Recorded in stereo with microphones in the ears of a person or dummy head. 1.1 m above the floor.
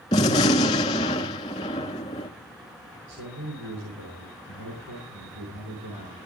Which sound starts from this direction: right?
A man speaking, at 3.1 s.